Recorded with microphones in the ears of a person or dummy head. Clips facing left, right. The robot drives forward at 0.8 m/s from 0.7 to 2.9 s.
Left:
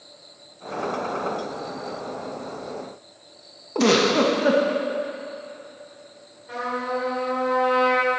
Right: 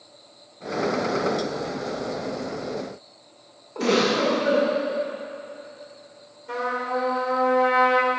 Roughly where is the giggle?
Left.